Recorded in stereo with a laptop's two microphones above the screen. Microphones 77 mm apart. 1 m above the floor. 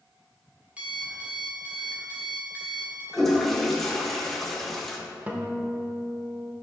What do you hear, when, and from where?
0.8 s an alarm clock: 15° right (ahead or behind), 1.7 m
3.1 s a toilet flushing: 5° left (ahead or behind), 0.9 m
5.3 s a guitar: 20° right (ahead or behind), 0.8 m